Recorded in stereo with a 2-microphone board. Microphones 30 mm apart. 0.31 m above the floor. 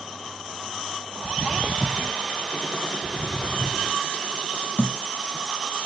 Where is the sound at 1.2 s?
20° right (ahead or behind), 0.6 m.